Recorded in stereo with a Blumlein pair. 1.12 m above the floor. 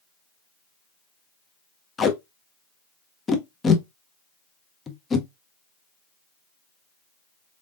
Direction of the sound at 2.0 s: 20° left.